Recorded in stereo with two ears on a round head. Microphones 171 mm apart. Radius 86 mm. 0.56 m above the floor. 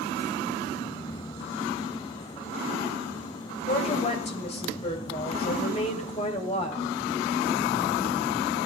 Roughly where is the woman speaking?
Left.